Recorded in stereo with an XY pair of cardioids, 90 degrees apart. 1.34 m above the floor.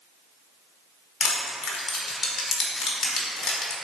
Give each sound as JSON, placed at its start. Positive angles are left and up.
{"t": 1.2, "sound": "crushing", "azimuth_deg": 55, "distance_m": 1.2}